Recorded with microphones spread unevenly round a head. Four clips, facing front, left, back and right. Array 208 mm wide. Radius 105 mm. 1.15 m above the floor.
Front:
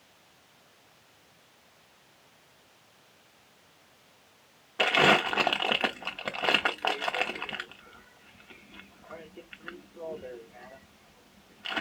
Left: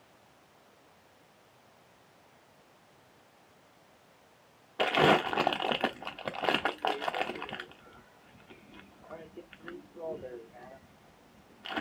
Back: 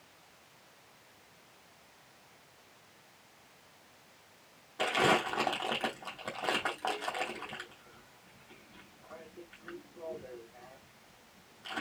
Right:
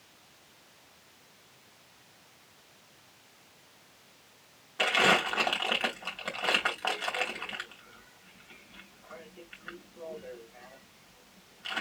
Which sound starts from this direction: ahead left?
Crumpling, at 4.8 s.